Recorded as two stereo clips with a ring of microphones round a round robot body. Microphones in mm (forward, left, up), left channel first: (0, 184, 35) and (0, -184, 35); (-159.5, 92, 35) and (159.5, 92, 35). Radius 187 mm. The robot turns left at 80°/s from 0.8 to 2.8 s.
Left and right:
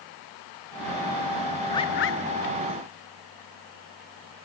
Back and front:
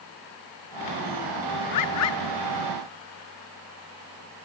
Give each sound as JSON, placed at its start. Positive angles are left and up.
{"t": 1.7, "sound": "a bird", "azimuth_deg": 170, "distance_m": 1.0}